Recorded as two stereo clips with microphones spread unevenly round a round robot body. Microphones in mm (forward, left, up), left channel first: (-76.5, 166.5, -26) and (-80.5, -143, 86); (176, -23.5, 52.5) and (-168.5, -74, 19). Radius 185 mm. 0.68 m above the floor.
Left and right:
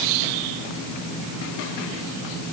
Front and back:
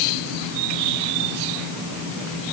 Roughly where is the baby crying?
No baby crying in this recording.